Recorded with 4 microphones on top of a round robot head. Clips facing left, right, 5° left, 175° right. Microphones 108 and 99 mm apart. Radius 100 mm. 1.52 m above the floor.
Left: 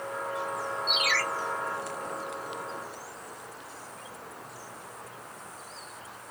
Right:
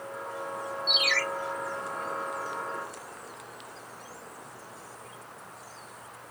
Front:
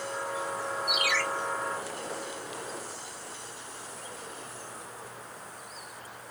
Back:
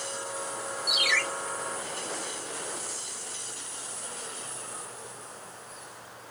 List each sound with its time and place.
0.9 s a ringtone: 140° right, 2.5 m